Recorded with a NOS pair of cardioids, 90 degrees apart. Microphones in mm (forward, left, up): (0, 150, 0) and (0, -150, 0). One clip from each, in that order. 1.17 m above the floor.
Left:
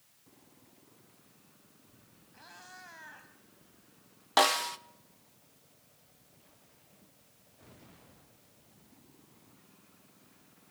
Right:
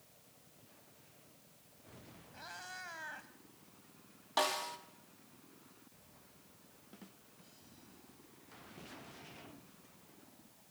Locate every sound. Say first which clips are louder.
2.3 s a cat meowing: right 4 dB; 30° right, 3 m
4.4 s a snare drum: left 9 dB; 55° left, 1.1 m